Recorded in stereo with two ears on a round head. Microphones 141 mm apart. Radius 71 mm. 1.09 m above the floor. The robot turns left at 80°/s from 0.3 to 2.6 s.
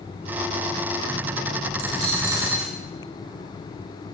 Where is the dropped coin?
110° right, 8 m; by 2.8 s 175° right, 8 m.